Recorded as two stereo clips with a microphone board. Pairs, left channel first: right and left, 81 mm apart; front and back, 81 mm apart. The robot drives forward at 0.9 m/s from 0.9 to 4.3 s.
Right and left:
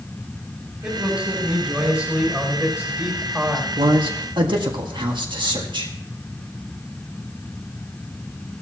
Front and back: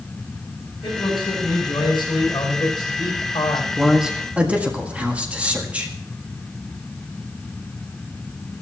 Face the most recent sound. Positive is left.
turn(degrees=105)